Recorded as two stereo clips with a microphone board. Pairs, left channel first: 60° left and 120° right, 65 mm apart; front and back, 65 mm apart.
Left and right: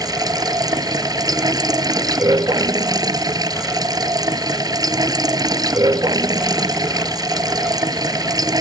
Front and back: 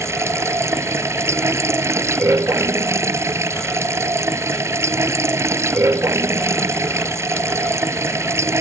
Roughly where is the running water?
Behind right.